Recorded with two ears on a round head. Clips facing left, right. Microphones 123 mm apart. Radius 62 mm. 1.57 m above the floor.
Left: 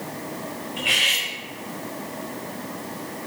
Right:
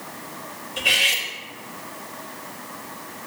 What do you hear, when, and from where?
0.8 s cutlery clinking: 65° right (ahead or behind), 3.5 m